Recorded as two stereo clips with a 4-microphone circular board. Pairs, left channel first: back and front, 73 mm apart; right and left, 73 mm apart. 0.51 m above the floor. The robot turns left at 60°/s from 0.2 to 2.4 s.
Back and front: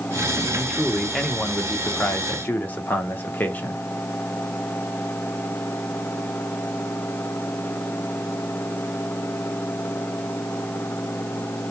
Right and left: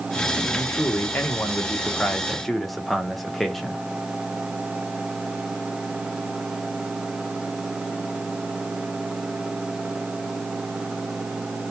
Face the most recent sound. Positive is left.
turn(degrees=-175)